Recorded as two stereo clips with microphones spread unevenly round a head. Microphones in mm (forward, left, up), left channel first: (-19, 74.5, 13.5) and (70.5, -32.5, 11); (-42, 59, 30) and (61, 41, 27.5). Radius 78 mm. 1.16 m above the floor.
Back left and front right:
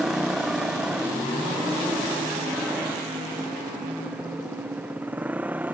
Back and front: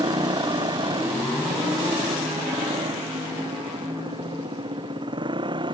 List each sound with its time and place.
0.0 s a motorcycle: 35° left; by 5.7 s 30° left